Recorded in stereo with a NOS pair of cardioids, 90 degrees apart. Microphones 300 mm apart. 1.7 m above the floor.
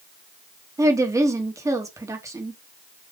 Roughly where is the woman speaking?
Ahead.